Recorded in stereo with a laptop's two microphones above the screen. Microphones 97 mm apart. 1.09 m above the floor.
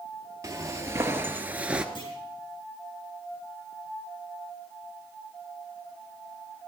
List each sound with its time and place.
0.4 s footsteps: 35° right (ahead or behind), 1.5 m; by 1.9 s 10° right (ahead or behind), 1.0 m
1.9 s a clunk: 65° left (ahead or behind), 4 m